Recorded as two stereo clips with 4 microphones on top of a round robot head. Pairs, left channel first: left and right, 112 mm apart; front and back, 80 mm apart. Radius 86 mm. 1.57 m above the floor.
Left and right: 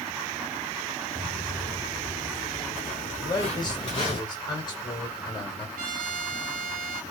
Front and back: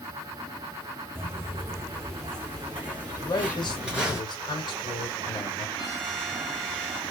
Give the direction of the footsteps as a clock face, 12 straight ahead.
8 o'clock.